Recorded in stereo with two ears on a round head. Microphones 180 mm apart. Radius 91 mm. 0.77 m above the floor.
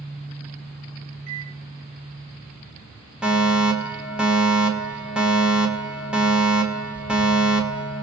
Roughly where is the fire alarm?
Centre.